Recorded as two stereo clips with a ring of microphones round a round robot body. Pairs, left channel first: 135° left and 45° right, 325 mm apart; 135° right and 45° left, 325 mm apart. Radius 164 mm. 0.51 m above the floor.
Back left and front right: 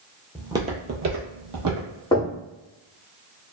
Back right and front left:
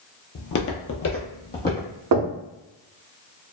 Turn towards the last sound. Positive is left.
turn(degrees=60)